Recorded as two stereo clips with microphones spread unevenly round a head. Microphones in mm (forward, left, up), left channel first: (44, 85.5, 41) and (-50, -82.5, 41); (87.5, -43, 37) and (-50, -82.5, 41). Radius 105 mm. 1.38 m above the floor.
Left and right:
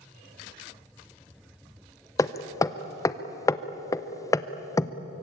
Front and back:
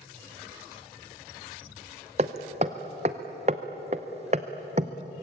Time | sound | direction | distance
2.2 | hammering | 135° left | 0.7 m